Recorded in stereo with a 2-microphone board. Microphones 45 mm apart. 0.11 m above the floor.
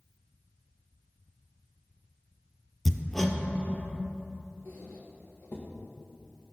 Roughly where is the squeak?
Left.